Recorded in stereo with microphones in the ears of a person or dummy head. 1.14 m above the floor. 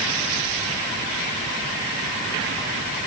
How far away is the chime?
I don't hear a chime.